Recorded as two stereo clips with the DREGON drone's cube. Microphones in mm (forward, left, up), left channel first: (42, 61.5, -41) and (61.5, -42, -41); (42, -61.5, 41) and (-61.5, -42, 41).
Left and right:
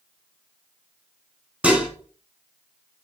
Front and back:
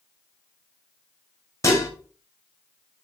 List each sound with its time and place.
1.6 s dishes clattering: 15° right, 0.8 m